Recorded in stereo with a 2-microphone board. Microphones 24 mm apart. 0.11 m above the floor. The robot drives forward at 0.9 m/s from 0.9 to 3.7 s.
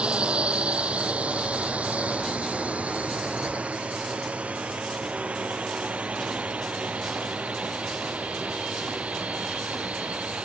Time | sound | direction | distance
0.0 | a drone | 55° right (ahead or behind) | ?